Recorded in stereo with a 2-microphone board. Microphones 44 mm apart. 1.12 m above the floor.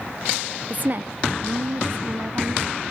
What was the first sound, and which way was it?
A woman speaking, 35° right (ahead or behind).